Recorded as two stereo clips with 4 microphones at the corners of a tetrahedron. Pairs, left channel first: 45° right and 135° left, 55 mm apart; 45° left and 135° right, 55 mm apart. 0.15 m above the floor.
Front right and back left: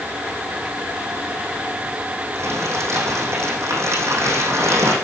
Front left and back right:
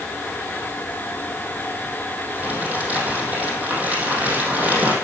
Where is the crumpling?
160° left, 3.5 m.